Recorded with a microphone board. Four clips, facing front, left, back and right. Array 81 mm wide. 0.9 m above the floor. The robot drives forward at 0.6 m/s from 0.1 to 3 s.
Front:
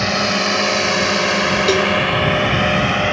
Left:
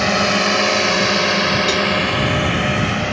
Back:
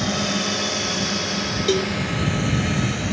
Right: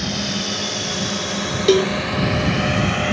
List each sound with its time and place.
0.0 s a drone: 60° left; by 3.1 s 5° right
1.7 s a cowbell: 70° right; by 1.9 s 75° right